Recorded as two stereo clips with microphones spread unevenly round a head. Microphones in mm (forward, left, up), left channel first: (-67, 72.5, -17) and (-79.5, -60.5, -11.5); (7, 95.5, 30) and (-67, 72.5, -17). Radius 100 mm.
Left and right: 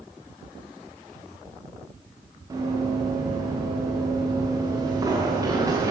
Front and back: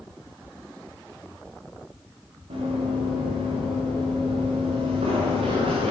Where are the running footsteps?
160° right, 6.5 m.